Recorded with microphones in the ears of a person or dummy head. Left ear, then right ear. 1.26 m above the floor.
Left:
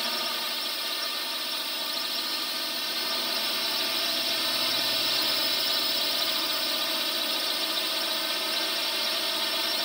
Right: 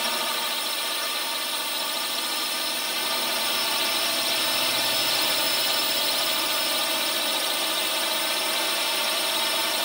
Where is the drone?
25° right (ahead or behind).